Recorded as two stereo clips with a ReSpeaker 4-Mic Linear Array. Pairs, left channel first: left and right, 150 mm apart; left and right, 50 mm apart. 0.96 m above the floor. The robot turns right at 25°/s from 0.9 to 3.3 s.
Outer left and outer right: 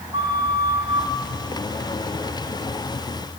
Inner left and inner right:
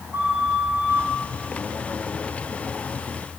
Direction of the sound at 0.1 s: 40° right (ahead or behind).